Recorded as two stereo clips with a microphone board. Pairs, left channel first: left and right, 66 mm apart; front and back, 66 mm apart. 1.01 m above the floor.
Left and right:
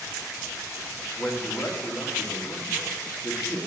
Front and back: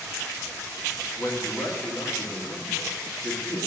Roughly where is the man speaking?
Ahead left.